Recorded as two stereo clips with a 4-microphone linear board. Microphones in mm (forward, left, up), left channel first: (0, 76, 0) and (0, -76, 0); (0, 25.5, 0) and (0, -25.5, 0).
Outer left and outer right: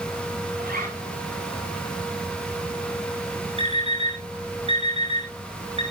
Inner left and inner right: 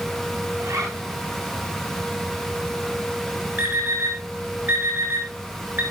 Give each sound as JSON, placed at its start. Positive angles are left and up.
{"t": 0.6, "sound": "a zipper", "side_deg": -80, "distance_m": 9.0}
{"t": 3.6, "sound": "an alarm clock", "side_deg": -40, "distance_m": 5.0}